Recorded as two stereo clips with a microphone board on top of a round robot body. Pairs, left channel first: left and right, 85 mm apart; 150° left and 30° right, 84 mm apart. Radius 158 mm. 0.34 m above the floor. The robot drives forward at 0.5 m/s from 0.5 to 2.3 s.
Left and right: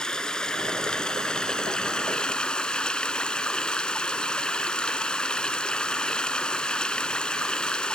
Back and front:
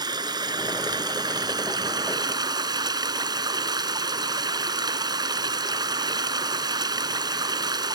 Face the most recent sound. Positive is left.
turn(degrees=10)